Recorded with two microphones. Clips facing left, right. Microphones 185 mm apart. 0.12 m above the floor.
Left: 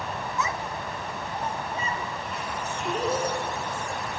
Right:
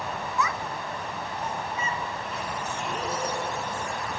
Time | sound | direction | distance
0.4 | a child speaking | 20° left (ahead or behind) | 0.7 m